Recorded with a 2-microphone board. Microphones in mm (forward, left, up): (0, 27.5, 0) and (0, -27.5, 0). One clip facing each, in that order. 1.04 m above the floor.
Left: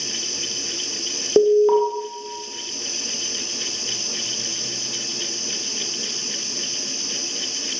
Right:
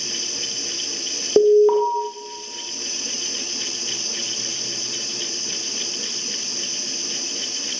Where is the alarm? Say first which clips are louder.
Right 1 dB; centre (ahead or behind), 1.7 m.